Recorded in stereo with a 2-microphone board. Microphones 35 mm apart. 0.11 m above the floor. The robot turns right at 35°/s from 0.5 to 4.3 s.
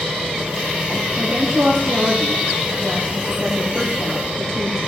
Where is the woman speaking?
120° right, 4 m; by 4.8 s 10° right, 4 m.